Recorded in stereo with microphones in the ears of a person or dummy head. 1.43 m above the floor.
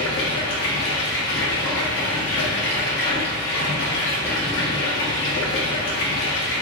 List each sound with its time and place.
0.0 s running water: 75° left (ahead or behind), 0.9 m